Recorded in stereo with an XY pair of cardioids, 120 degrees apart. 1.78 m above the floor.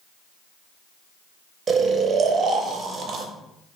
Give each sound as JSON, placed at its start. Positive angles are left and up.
{"t": 1.7, "sound": "snoring", "azimuth_deg": -50, "distance_m": 0.5}